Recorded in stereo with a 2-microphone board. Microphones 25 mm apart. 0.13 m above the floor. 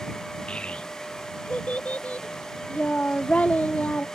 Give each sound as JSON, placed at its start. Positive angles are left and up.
{"t": 0.5, "sound": "a child speaking", "side_deg": 45}